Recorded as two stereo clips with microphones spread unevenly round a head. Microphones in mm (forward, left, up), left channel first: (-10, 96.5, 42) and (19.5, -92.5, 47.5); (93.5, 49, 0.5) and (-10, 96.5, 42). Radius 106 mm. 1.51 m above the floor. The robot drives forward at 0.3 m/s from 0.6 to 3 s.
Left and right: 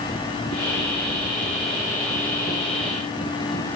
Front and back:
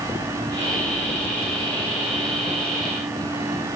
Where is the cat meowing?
I don't hear a cat meowing.